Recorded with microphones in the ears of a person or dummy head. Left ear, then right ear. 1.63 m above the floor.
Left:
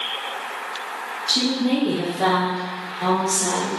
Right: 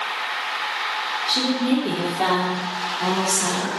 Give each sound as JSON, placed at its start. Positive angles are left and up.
{"t": 1.3, "sound": "a woman speaking", "side_deg": -20, "distance_m": 0.7}